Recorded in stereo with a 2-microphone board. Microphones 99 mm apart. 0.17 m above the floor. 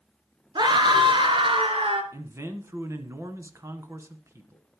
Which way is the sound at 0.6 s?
45° right (ahead or behind).